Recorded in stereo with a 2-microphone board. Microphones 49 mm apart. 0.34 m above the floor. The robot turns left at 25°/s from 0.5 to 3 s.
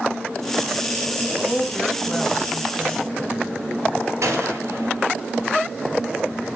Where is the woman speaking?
40° left, 1.7 m; by 3.1 s straight ahead, 1.7 m.